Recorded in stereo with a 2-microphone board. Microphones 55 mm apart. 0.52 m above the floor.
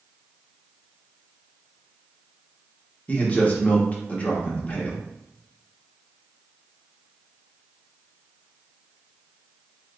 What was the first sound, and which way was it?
A man speaking, 25° left (ahead or behind).